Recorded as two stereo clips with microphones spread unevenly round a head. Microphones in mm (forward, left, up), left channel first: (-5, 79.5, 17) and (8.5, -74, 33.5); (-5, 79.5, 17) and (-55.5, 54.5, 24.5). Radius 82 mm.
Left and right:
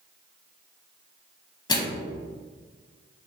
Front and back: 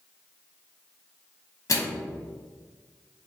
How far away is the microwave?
About 0.9 m.